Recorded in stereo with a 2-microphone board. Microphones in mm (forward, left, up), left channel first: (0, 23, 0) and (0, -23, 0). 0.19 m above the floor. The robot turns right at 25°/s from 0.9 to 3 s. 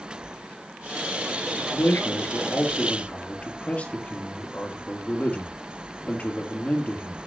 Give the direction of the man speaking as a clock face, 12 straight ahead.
8 o'clock.